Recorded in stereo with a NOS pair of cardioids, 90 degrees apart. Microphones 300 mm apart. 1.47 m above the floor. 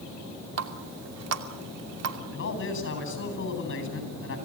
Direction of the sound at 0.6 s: 55° right.